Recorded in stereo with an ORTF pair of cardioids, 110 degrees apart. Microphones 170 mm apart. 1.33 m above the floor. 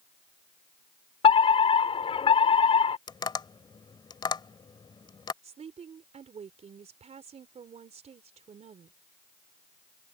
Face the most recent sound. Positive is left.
turn(degrees=-40)